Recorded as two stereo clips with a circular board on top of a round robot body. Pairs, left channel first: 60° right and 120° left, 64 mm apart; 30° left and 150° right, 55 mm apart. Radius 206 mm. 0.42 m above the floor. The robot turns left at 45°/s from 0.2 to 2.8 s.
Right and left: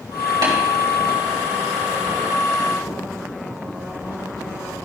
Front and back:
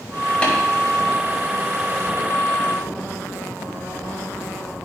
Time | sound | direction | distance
0.4 | tapping | 105° left | 3 m